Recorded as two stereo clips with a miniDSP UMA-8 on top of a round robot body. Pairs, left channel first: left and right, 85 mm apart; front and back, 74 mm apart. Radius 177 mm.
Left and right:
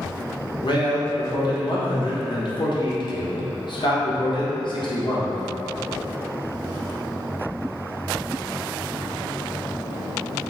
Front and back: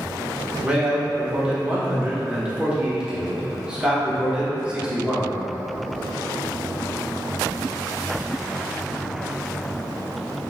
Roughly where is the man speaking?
Left.